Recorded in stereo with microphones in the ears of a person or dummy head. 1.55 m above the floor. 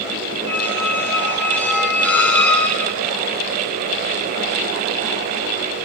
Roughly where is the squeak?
Centre.